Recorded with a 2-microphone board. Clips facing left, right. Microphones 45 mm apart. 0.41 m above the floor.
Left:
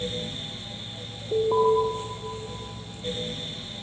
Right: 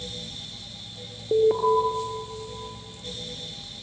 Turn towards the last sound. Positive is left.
turn(degrees=-50)  # may be behind; listen again after turning